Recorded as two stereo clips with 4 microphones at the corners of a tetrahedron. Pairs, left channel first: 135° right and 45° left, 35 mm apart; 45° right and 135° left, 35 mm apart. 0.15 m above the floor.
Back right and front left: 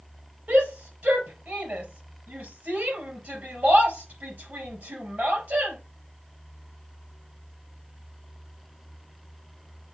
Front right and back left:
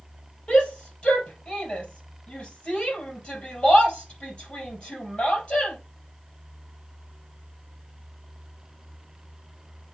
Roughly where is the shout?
Ahead.